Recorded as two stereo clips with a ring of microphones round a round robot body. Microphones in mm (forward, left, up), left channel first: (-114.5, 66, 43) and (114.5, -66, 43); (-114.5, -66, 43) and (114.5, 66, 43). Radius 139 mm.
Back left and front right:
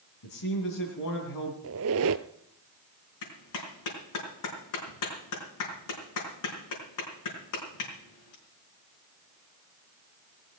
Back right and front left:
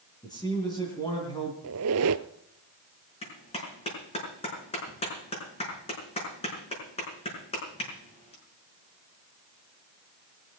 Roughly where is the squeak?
Ahead.